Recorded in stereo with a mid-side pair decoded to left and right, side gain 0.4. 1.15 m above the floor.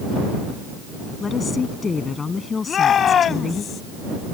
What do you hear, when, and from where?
1.2 s a woman speaking: 40° left
2.7 s a shout: 60° left